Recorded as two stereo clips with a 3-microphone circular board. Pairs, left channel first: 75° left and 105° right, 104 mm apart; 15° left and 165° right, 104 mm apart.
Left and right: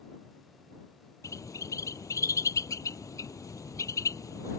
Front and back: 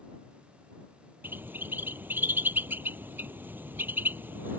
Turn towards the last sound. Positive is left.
turn(degrees=125)